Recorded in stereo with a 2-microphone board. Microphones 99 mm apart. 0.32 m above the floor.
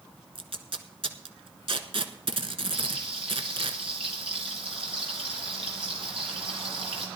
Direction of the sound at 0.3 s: 70° right (ahead or behind).